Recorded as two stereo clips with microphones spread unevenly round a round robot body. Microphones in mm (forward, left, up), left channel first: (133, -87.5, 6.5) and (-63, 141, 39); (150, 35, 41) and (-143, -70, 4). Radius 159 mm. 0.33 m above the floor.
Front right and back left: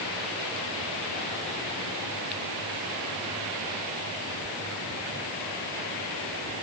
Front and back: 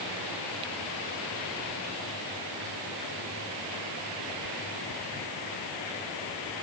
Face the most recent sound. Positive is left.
No sound to turn to.